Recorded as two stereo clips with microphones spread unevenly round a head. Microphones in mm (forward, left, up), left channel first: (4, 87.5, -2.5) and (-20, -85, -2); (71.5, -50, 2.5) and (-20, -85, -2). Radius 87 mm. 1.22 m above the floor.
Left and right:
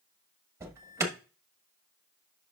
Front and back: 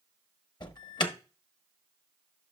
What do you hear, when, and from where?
0.6 s an alarm: 25° right, 1.1 m